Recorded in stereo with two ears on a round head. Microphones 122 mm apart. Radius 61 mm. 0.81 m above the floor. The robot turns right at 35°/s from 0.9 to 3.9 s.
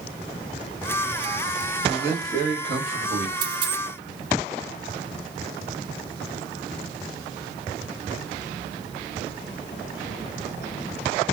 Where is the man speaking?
165° right, 1.6 m; by 3.3 s 115° right, 1.6 m.